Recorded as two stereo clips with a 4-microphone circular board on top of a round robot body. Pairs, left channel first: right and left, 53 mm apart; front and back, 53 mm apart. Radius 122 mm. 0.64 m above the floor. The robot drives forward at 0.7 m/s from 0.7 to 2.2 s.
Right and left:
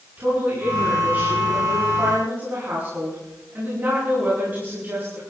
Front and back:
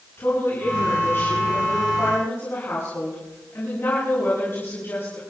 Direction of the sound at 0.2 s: 35° left.